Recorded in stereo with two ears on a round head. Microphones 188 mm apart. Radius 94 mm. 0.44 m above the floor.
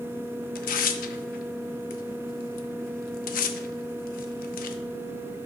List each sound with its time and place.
0.6 s tearing paper: 45° left (ahead or behind), 0.6 m